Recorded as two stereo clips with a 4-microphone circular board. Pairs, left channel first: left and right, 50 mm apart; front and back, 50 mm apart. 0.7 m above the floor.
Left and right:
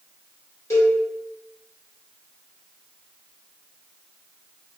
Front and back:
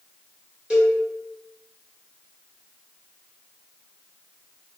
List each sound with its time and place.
0.7 s a cowbell: 110° left, 1.1 m